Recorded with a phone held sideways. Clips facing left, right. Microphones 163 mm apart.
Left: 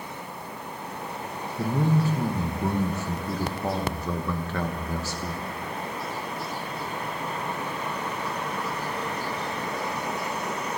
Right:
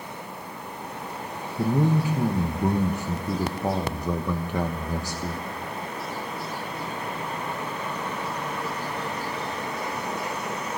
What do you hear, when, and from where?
1.6 s a man speaking: 15° right (ahead or behind), 1.0 m